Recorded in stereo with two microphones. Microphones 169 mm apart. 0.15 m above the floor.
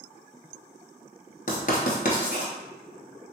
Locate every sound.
1.5 s writing: 55° left (ahead or behind), 0.9 m